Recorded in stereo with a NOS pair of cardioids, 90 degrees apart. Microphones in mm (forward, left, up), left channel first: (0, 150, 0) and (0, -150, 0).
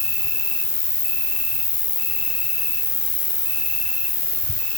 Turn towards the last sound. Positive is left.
turn(degrees=55)